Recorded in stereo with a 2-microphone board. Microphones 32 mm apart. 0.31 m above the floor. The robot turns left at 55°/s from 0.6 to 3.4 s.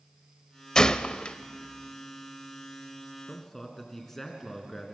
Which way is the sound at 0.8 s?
20° left (ahead or behind).